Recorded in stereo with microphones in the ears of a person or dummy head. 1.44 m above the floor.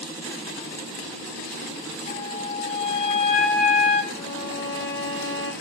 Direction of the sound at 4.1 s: 65° left (ahead or behind).